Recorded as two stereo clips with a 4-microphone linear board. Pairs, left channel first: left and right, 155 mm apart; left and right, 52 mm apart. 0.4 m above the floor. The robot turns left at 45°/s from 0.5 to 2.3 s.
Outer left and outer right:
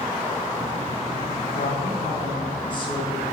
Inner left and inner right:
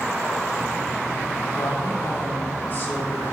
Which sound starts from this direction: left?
A woman speaking, at 1.5 s.